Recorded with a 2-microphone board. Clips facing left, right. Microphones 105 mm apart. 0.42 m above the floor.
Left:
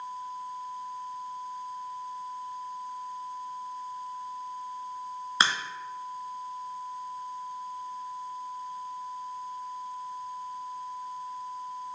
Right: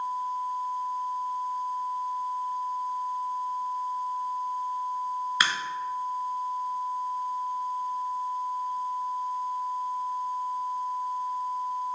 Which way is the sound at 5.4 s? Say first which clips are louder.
Left 4 dB; 30° left (ahead or behind).